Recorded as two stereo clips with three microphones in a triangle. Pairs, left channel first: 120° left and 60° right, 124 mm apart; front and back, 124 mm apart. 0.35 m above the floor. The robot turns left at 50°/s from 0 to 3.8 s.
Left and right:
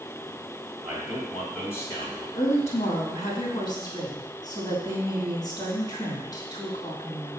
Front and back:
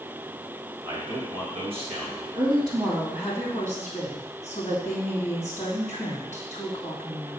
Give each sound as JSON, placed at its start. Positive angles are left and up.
{"t": 0.8, "sound": "a man speaking", "azimuth_deg": -130, "distance_m": 2.5}
{"t": 2.4, "sound": "a woman speaking", "azimuth_deg": 140, "distance_m": 3.0}